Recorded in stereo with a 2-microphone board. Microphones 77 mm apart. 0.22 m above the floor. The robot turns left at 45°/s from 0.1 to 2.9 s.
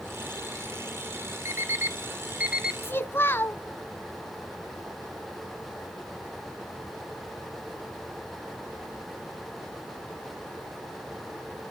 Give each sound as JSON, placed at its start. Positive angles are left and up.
{"t": 1.4, "sound": "an alarm clock", "side_deg": -35, "distance_m": 0.6}
{"t": 2.8, "sound": "a child speaking", "side_deg": 30, "distance_m": 0.7}